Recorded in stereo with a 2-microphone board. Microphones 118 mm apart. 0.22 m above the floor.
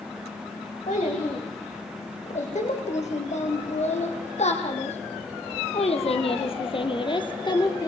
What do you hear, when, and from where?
0.9 s a child speaking: 80° left, 8.5 m; by 7.9 s 30° left (ahead or behind), 2.5 m